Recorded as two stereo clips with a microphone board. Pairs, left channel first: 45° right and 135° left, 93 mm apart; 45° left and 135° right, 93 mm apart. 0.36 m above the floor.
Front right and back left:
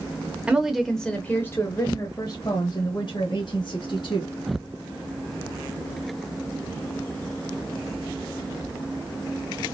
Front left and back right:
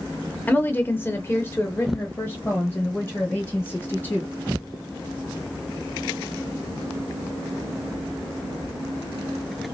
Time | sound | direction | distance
0.5 | a woman speaking | 75° left | 0.8 m